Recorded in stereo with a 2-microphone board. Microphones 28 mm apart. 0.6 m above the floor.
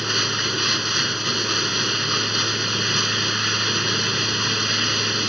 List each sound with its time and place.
0.0 s running water: centre (ahead or behind)